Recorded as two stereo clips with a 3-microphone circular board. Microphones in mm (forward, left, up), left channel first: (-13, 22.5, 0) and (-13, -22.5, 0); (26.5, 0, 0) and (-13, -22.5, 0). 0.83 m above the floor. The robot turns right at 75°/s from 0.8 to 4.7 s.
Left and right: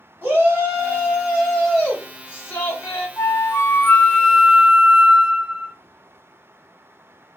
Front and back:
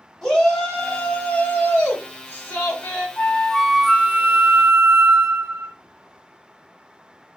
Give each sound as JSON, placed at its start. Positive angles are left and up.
{"t": 0.2, "sound": "a shout", "azimuth_deg": -55, "distance_m": 1.6}
{"t": 3.2, "sound": "a flute", "azimuth_deg": 85, "distance_m": 0.5}